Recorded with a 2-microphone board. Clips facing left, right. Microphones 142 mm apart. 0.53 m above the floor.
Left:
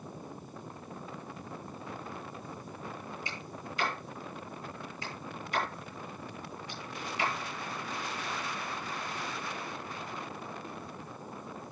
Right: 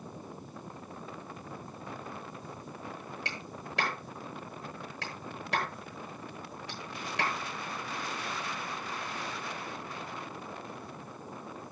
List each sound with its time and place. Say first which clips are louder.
3.2 s a clap: even; 75° right (ahead or behind), 9.5 m